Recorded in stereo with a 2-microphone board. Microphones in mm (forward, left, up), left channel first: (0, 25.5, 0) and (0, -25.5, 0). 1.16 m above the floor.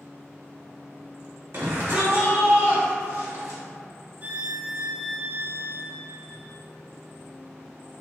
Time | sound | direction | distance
1.5 | a shout | 60° right (ahead or behind) | 1.6 m
4.2 | a violin | 35° right (ahead or behind) | 0.5 m